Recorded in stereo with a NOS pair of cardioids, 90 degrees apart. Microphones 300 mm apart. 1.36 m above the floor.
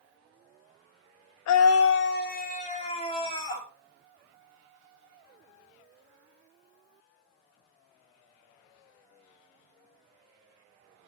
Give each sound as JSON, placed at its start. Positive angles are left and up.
{"t": 1.5, "sound": "a scream", "azimuth_deg": 70, "distance_m": 0.9}